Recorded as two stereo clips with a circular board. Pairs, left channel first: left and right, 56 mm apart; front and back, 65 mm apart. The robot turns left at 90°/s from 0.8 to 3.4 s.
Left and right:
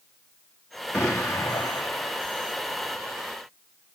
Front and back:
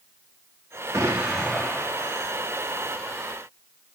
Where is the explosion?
140° left, 2.5 m; by 2.2 s 20° left, 2.5 m.